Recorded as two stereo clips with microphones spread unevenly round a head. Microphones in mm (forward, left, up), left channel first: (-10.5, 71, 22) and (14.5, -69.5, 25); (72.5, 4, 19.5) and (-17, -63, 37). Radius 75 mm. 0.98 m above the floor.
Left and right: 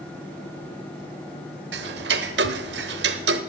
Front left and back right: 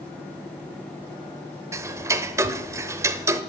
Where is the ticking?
85° right, 1.1 m.